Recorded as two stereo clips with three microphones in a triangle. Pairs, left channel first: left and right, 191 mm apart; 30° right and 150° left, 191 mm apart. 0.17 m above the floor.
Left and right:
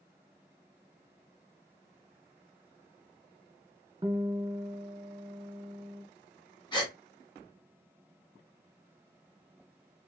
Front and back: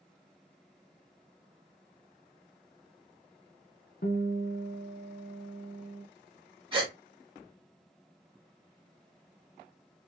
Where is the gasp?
125° left, 1.3 m.